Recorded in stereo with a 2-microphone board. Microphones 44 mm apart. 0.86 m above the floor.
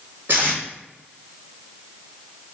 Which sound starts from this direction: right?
Tape being pulled, at 0.3 s.